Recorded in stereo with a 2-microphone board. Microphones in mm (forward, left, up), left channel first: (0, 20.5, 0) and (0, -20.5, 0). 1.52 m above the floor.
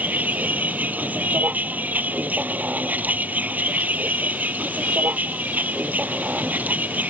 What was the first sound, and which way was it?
A vehicle, 45° right (ahead or behind).